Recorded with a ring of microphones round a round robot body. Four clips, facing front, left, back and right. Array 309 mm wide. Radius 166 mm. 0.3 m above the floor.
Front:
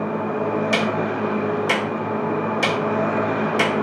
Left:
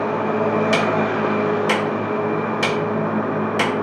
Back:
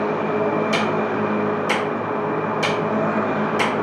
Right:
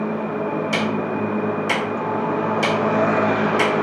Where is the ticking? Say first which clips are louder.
Left 3 dB, back 1 dB; 60° left, 1.5 m.